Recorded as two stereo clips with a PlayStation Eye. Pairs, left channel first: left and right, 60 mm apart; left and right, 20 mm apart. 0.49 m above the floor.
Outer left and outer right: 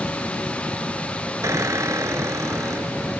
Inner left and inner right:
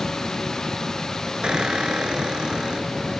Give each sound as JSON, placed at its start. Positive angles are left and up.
{"t": 1.4, "sound": "a squeak", "side_deg": -60}